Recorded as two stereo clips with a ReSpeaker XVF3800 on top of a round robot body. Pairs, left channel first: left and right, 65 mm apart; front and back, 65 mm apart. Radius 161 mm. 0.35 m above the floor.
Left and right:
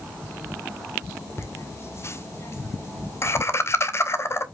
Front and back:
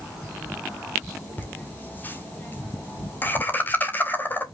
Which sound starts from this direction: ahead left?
Laughter, at 1.4 s.